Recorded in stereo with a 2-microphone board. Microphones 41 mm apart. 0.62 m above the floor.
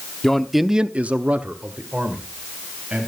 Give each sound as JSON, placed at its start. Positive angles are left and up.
{"t": 0.2, "sound": "a man speaking", "side_deg": 10, "distance_m": 0.9}